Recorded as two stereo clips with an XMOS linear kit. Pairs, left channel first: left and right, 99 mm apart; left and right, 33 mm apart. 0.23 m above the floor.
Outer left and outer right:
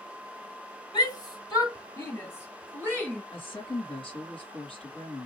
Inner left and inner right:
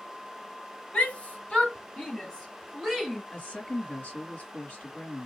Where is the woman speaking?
60° left (ahead or behind), 3 m.